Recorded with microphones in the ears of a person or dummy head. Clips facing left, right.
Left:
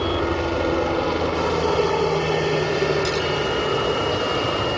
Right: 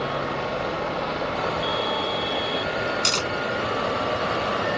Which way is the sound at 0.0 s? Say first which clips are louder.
Left 5 dB; 55° left (ahead or behind).